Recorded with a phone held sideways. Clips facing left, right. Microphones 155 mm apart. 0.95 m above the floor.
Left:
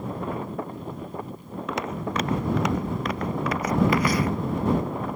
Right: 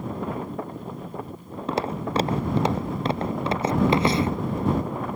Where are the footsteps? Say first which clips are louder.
Right 3 dB; 30° right (ahead or behind); by 4.4 s 25° right (ahead or behind).